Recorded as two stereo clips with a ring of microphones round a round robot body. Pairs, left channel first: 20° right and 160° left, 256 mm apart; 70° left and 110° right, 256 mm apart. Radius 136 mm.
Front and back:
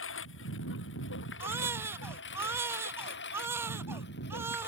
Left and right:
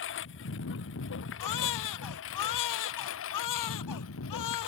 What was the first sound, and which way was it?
A lawn mower, 20° left.